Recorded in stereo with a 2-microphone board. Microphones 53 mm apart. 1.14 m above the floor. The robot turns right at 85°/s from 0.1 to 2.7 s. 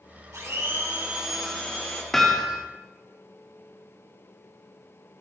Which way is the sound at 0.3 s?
90° right.